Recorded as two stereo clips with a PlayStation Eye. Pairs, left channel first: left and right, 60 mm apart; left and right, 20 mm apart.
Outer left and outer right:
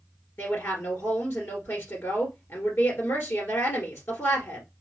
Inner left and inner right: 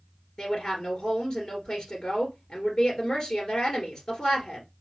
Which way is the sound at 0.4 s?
40° left (ahead or behind).